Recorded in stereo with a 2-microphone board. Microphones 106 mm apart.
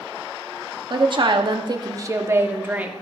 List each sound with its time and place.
0.9 s a woman speaking: 45° right (ahead or behind), 0.9 m; by 2.9 s 15° right (ahead or behind), 1.4 m